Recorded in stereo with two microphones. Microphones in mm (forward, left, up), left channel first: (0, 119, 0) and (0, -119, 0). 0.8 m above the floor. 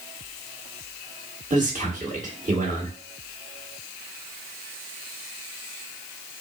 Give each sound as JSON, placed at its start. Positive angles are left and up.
{"t": 1.5, "sound": "a man speaking", "side_deg": -35, "distance_m": 1.6}